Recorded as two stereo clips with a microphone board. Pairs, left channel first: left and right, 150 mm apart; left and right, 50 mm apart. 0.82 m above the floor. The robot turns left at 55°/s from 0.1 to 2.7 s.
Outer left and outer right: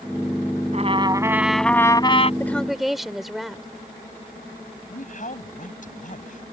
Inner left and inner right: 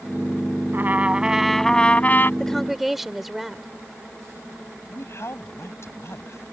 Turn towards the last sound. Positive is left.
turn(degrees=55)  # may be behind; listen again after turning